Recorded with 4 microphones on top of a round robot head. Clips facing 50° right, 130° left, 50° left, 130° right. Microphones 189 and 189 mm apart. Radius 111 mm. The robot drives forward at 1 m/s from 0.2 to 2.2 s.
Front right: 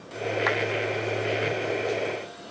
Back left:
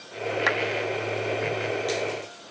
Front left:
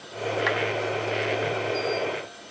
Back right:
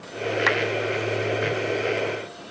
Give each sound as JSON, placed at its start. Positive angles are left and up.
{"t": 0.5, "sound": "a clap", "azimuth_deg": -170}